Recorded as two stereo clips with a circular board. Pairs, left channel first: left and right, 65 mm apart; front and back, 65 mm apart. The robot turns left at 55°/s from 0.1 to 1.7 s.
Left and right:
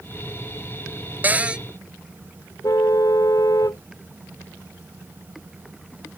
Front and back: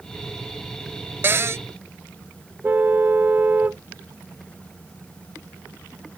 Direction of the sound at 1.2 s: 140° right.